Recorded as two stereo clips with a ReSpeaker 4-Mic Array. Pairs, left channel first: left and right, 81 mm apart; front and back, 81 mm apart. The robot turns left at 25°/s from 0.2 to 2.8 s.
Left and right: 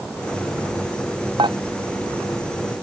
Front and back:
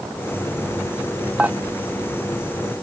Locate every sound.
1.4 s dishes clattering: 105° right; by 1.6 s 110° right